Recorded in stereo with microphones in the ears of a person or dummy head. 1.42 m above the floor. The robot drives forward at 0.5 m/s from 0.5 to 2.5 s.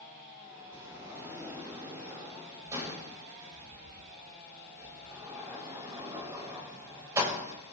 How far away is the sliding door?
About 4 m.